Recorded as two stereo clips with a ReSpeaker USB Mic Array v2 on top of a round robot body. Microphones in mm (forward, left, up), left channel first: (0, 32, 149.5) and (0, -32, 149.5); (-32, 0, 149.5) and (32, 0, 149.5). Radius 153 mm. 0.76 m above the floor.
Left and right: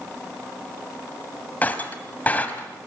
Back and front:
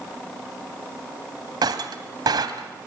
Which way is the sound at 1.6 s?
20° left.